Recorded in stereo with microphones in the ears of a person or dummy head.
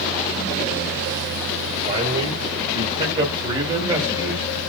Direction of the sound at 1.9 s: 40° right (ahead or behind).